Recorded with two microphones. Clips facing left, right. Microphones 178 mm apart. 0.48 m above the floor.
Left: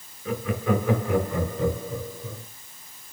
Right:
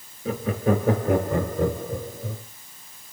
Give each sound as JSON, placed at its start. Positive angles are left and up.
{"t": 0.2, "sound": "laughter", "side_deg": -30, "distance_m": 1.0}